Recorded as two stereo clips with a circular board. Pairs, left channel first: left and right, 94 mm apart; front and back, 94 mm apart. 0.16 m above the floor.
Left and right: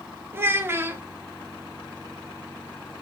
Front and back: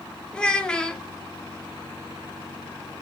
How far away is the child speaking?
About 0.6 m.